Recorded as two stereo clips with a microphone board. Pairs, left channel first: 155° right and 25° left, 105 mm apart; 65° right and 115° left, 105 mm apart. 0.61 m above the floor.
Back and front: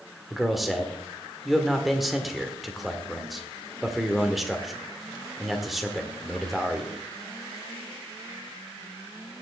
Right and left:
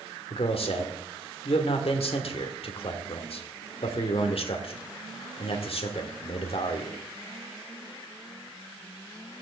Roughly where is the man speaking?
Ahead right.